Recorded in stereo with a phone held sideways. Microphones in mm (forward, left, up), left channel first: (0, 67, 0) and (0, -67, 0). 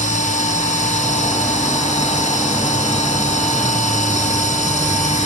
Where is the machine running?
70° left (ahead or behind), 3 m.